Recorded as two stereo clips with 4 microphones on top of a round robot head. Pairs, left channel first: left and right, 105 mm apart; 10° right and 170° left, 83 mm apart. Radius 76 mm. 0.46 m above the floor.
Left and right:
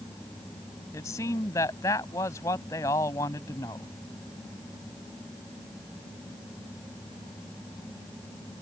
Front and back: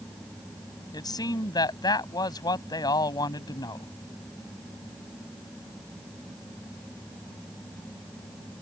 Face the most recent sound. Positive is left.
turn(degrees=25)